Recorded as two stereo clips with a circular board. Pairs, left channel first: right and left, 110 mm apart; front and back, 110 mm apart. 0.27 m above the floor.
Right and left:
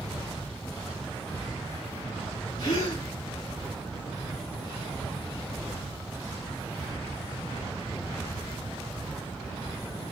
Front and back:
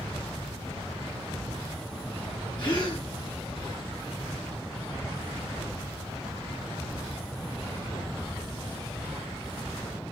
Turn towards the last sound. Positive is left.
turn(degrees=-45)